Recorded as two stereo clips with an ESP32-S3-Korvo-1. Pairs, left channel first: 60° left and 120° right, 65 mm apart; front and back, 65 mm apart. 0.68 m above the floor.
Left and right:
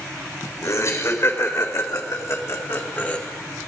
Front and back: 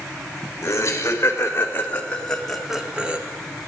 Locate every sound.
0.6 s laughter: 35° left, 2.5 m; by 3.2 s 120° left, 1.5 m